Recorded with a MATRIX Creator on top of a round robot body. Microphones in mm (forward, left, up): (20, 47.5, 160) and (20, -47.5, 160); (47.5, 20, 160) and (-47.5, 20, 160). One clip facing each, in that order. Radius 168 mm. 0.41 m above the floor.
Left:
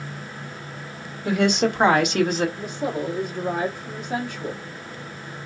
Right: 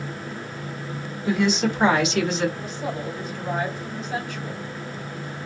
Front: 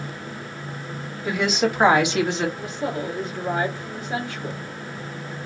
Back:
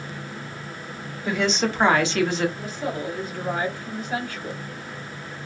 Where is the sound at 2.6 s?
70° left, 2.0 m.